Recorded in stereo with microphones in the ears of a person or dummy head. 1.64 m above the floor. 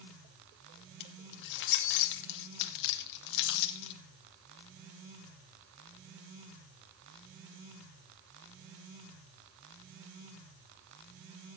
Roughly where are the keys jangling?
Left.